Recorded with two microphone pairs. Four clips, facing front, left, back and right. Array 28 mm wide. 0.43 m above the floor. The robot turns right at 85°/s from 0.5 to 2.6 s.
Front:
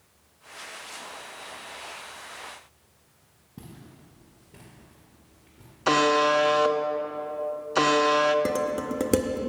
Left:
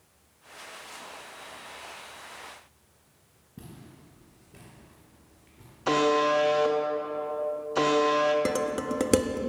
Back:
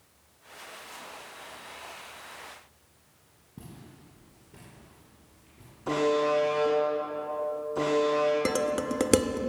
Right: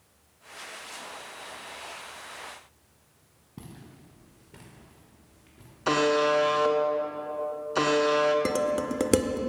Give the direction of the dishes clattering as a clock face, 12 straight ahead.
6 o'clock.